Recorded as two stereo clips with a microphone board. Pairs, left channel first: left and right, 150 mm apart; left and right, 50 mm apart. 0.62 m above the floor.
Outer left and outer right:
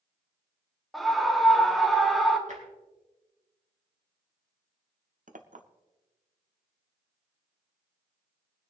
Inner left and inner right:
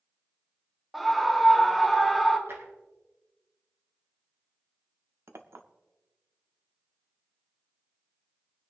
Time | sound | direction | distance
0.9 | a scream | centre (ahead or behind) | 1.2 m
2.5 | tapping | 55° right (ahead or behind) | 2.5 m
5.3 | a clink | 60° right (ahead or behind) | 0.9 m